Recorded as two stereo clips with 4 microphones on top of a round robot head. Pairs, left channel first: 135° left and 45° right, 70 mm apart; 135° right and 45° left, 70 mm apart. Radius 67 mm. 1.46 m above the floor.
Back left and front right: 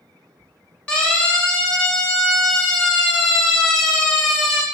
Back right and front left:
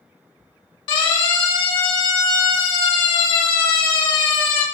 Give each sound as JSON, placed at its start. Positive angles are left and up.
{"t": 0.9, "sound": "a siren", "azimuth_deg": -150, "distance_m": 6.0}